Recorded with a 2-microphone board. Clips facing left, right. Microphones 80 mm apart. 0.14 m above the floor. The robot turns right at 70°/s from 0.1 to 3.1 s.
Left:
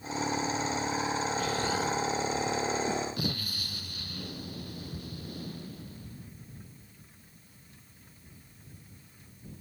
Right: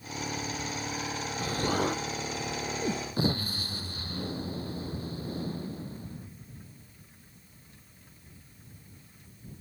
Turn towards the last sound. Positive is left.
turn(degrees=-30)